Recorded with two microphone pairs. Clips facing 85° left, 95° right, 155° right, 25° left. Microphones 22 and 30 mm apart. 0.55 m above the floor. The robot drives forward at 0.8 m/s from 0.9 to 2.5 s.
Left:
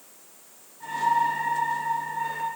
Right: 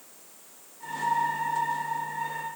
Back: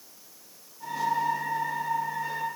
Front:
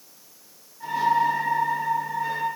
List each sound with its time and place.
Only background noise.